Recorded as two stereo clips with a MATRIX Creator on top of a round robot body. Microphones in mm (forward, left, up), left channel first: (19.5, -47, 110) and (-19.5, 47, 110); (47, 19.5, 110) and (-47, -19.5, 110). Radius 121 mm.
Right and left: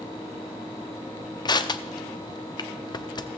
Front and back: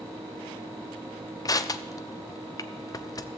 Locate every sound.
1.4 s crushing: 25° right, 0.8 m